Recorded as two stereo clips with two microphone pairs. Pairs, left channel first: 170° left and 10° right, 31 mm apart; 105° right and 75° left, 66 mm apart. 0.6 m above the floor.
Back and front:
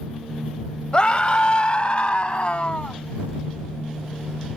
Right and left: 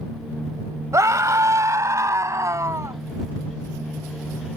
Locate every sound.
0.9 s a scream: 110° left; by 3.0 s 115° left